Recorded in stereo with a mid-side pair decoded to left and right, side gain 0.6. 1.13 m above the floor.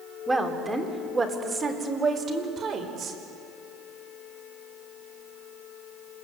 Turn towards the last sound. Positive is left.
turn(degrees=-45)